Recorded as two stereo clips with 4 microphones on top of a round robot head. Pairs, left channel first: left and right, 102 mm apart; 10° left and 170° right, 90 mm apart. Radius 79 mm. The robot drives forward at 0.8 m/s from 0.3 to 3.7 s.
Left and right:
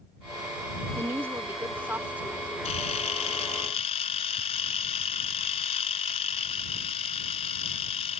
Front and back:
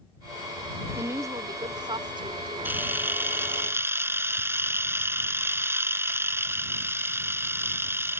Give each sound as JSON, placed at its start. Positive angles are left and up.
{"t": 1.0, "sound": "a woman speaking", "azimuth_deg": -130}
{"t": 2.6, "sound": "a camera shutter", "azimuth_deg": 125}